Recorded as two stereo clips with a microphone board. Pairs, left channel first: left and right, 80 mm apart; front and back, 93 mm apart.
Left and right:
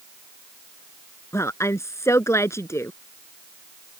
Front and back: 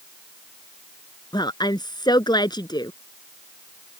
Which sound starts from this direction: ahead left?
A woman speaking, at 1.3 s.